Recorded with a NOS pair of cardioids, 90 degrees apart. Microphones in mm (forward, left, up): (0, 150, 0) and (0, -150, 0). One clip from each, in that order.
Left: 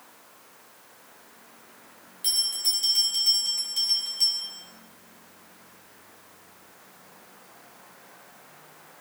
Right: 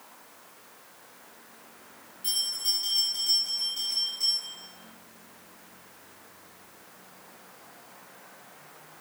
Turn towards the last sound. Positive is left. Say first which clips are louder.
# left 3 dB
turn(degrees=65)